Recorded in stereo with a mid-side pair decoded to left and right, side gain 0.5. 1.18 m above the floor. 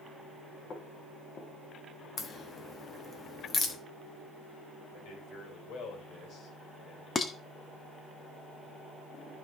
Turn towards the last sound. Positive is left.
turn(degrees=35)